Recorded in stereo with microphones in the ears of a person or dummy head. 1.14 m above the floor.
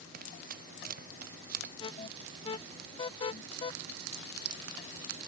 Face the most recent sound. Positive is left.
turn(degrees=35)  # may be behind; listen again after turning